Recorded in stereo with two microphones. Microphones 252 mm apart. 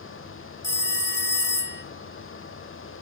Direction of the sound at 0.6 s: 45° left (ahead or behind).